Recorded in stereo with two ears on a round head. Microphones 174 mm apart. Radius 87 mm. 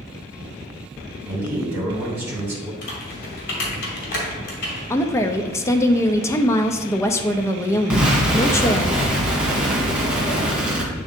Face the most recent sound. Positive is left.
turn(degrees=-5)  # may be behind; listen again after turning